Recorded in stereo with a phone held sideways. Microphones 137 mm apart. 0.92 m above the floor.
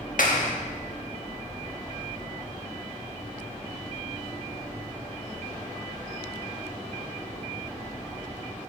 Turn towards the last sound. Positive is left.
turn(degrees=80)